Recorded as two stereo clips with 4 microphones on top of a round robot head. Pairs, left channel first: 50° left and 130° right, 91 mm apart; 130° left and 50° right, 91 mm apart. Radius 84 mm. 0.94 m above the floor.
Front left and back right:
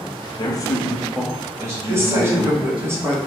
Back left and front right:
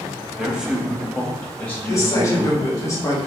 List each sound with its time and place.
0.4 s a man speaking: 30° left, 1.1 m; by 2.9 s 160° right, 2.0 m
1.9 s a woman speaking: 175° left, 1.1 m